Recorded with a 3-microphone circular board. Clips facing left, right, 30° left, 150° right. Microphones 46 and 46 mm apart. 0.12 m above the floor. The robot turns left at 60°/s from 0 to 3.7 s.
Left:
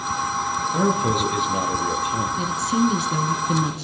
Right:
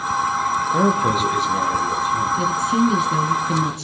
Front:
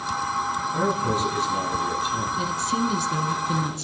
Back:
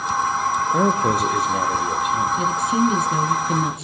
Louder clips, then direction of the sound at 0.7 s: Right 2 dB, back 4 dB; 150° right.